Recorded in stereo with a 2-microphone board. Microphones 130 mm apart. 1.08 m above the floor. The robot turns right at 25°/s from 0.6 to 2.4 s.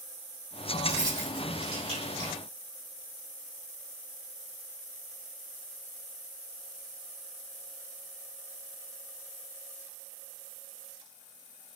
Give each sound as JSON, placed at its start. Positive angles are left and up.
{"t": 0.8, "sound": "keys jangling", "side_deg": -25, "distance_m": 4.0}